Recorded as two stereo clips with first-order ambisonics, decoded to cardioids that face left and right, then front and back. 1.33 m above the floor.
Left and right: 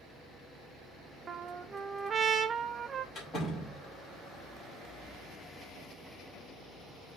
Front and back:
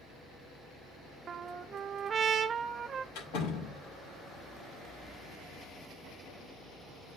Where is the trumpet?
140° right, 0.5 m.